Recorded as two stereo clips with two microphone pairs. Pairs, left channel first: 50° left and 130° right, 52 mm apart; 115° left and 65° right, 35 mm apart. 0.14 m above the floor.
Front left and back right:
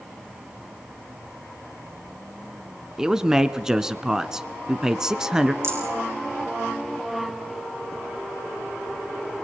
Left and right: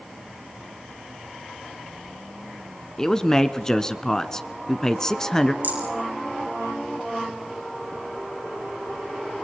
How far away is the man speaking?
About 1.2 m.